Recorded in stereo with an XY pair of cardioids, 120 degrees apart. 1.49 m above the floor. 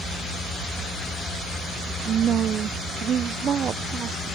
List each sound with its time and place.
2.0 s a woman speaking: 45° right